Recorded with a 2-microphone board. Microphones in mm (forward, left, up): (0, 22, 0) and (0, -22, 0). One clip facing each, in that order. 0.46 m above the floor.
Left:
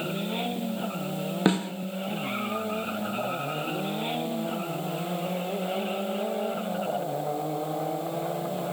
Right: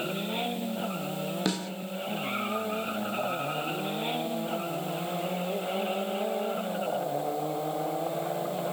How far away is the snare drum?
About 0.9 m.